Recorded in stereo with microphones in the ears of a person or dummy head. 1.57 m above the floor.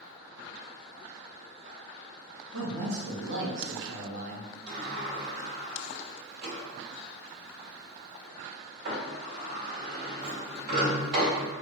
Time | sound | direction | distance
2.5 | a man speaking | 75° right (ahead or behind) | 1.5 m
4.7 | a sliding door | 60° right (ahead or behind) | 1.8 m